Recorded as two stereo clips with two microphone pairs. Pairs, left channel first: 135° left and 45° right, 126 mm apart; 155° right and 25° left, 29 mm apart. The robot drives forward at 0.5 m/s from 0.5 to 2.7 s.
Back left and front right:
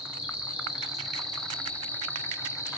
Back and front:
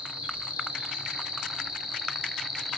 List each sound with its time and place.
0.0 s an insect: 30° left, 1.4 m; by 2.8 s 125° left, 1.2 m